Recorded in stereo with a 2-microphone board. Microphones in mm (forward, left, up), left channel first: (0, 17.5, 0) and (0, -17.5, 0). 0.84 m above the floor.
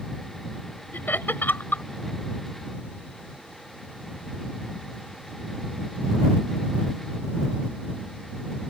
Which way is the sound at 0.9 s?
75° left (ahead or behind).